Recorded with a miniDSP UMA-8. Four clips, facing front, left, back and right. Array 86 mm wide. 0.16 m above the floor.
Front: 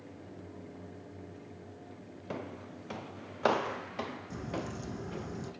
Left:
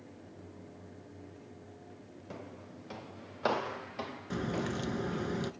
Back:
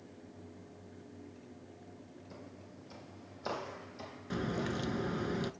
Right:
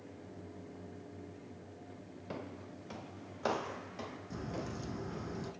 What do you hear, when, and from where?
2.3 s footsteps: 10° right, 1.0 m; by 5.3 s 25° left, 3.5 m
4.3 s a crack: 135° left, 1.1 m